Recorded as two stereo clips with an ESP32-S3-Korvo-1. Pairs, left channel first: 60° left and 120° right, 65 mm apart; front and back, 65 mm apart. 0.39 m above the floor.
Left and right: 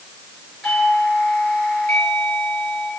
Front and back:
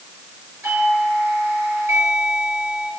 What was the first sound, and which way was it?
A doorbell, 140° left.